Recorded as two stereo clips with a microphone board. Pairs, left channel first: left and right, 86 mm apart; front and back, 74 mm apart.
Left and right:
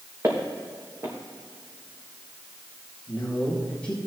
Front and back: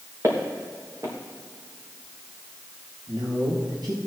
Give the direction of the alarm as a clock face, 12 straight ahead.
I don't hear an alarm.